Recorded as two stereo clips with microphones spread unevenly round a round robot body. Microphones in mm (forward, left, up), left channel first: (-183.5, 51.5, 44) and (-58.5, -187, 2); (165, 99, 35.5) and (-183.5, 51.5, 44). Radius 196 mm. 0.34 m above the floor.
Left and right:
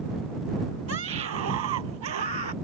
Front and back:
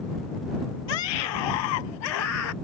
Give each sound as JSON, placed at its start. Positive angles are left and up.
{"t": 0.9, "sound": "a scream", "azimuth_deg": -5}